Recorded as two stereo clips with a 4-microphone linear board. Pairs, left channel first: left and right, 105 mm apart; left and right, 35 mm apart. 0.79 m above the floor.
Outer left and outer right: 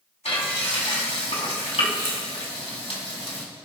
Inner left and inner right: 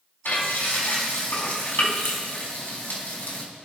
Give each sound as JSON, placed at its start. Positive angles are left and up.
{"t": 0.2, "sound": "frying", "side_deg": 75, "distance_m": 3.5}